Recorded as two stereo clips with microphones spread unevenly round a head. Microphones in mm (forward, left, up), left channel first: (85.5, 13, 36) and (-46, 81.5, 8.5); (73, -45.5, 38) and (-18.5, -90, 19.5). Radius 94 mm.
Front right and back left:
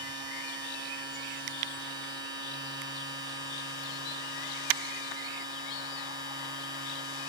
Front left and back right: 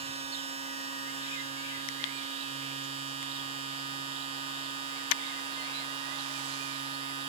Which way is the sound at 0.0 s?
135° right.